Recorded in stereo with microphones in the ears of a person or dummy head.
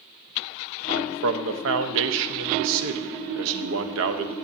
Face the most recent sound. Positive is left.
turn(degrees=-75)  # may be behind; listen again after turning